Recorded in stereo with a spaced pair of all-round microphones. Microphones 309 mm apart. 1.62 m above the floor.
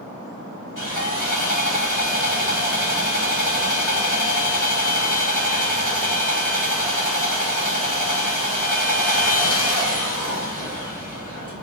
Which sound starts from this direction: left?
Sawing, at 0.8 s.